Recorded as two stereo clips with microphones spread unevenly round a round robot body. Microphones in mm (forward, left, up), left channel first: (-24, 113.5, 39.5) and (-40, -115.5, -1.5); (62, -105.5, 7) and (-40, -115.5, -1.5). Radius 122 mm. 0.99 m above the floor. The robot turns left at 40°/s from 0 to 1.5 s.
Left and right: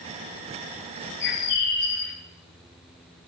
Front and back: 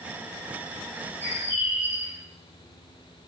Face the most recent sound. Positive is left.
turn(degrees=120)